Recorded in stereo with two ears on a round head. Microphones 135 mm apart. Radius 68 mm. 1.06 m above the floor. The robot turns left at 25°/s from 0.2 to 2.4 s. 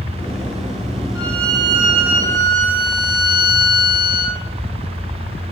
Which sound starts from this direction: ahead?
A violin, at 1.1 s.